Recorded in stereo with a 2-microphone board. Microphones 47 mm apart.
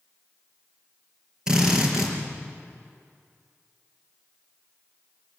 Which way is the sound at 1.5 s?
15° right (ahead or behind).